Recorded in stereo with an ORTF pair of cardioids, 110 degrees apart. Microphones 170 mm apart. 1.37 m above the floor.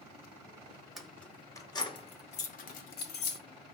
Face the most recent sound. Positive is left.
turn(degrees=80)